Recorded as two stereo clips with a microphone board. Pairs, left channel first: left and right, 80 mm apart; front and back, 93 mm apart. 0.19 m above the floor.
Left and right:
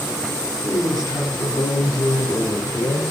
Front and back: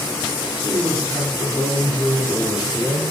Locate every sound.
0.6 s a woman speaking: 130° left, 5 m